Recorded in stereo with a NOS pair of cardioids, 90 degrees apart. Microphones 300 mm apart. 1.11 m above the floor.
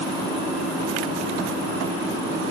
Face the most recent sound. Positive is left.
No sound to turn to.